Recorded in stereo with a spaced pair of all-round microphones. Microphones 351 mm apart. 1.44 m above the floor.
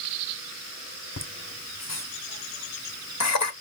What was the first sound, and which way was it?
Laughter, 50° left (ahead or behind).